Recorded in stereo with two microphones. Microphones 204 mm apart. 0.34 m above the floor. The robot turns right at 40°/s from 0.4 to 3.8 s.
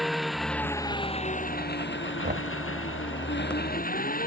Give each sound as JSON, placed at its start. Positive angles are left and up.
{"t": 0.0, "sound": "an engine running", "azimuth_deg": 0}
{"t": 2.2, "sound": "knocking", "side_deg": -55}